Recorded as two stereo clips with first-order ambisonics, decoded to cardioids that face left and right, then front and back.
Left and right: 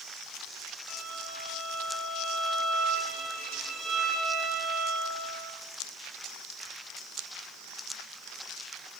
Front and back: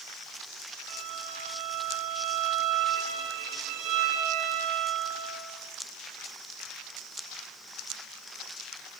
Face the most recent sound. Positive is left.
turn(degrees=-160)